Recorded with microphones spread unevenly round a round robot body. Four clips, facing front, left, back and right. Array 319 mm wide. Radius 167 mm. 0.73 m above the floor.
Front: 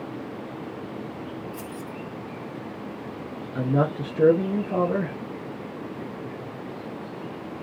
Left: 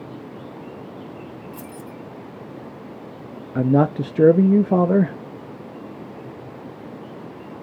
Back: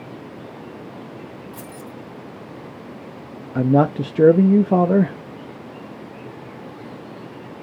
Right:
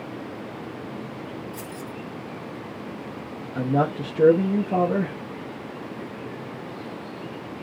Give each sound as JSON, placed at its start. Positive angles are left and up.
{"t": 1.5, "sound": "keys jangling", "azimuth_deg": 165, "distance_m": 2.0}
{"t": 3.5, "sound": "a man speaking", "azimuth_deg": 150, "distance_m": 0.6}